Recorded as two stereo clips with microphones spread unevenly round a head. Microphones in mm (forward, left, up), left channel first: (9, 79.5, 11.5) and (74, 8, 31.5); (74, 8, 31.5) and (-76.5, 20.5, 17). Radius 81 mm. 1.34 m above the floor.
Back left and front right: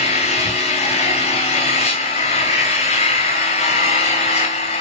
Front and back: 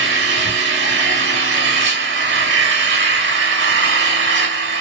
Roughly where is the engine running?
Behind.